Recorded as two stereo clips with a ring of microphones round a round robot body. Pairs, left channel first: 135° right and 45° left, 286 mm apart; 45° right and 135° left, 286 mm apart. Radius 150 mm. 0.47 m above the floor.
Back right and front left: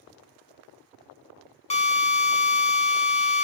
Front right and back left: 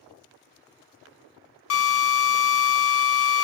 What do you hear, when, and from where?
1.7 s a drill: 70° right, 1.0 m